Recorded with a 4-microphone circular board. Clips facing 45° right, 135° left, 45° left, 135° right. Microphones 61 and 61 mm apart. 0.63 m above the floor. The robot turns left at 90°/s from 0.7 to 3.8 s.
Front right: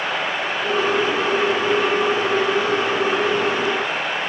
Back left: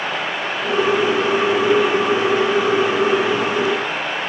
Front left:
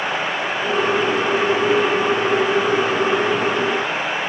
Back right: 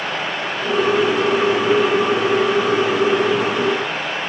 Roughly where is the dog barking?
I don't hear a dog barking.